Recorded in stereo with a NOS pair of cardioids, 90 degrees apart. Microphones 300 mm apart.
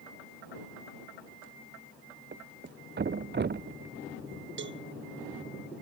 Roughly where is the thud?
Ahead right.